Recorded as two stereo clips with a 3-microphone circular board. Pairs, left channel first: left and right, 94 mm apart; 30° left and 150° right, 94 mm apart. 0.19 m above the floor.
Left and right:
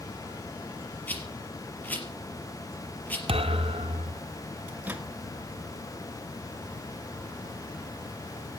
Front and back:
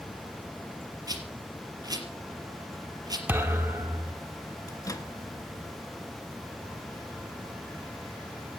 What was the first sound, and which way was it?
A rattle, 160° left.